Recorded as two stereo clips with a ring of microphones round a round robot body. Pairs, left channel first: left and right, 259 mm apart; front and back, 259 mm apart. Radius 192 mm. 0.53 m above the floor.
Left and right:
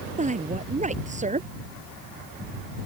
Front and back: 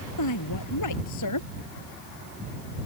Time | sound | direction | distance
0.2 | a woman speaking | 30° right | ?